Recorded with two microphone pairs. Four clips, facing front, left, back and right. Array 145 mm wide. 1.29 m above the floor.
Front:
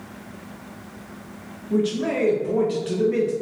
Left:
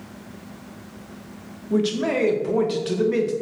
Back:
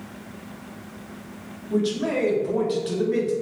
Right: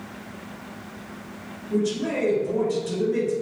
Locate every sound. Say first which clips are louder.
1.7 s a man speaking: left 3 dB, front 1 dB; 105° left, 0.6 m